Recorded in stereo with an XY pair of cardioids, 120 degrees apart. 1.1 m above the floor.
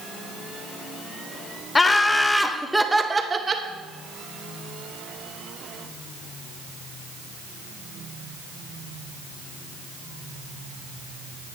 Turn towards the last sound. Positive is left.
turn(degrees=-30)